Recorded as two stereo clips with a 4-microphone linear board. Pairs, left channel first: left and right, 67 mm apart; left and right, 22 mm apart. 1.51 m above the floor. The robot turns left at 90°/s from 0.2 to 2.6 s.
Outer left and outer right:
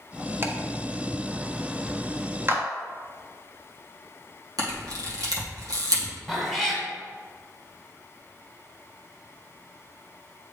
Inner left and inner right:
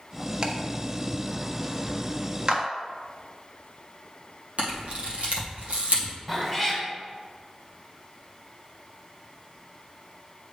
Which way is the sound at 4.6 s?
70° right (ahead or behind).